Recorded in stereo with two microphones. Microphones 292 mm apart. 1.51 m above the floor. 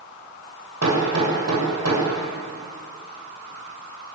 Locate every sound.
0.8 s hammering: 60° right (ahead or behind), 7 m